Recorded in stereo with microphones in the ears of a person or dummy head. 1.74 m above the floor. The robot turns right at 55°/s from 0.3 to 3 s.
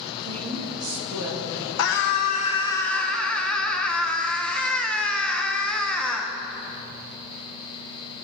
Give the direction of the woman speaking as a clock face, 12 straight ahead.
5 o'clock.